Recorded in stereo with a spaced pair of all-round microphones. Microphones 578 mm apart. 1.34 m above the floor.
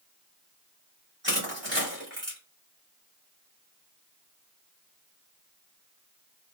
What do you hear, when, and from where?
1.2 s crushing: 20° right (ahead or behind), 2 m